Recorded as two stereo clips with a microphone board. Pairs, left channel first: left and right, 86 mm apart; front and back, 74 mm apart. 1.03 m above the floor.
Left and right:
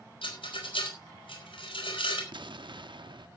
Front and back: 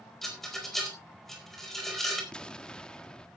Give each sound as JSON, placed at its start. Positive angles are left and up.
{"t": 0.2, "sound": "a rattle", "azimuth_deg": 85, "distance_m": 4.5}
{"t": 2.3, "sound": "an explosion", "azimuth_deg": -75, "distance_m": 0.8}